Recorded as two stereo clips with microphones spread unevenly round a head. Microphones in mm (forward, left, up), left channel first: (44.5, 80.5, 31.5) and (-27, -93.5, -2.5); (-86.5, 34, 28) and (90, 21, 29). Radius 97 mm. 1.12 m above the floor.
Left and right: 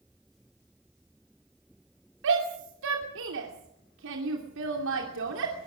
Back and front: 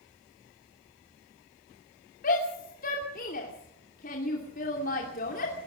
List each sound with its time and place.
2.2 s a shout: 135° right, 2.5 m